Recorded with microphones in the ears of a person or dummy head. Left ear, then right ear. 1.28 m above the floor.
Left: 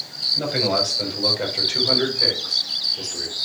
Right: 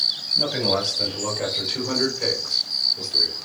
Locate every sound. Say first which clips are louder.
0.3 s a man speaking: left 1 dB; 5° left (ahead or behind), 5.5 m; by 3.4 s 5° right (ahead or behind), 4 m